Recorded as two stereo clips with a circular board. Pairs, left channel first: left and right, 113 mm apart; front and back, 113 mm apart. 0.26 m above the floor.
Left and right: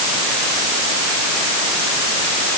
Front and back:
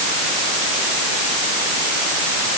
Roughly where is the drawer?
I don't hear a drawer.